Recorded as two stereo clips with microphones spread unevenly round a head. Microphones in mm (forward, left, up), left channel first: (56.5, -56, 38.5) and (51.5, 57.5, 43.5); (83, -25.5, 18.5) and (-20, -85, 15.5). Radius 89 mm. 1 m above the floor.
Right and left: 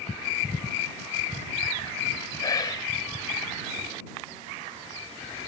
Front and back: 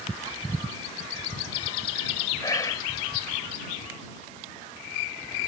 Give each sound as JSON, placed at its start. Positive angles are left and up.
{"t": 2.4, "sound": "whispering", "azimuth_deg": -30}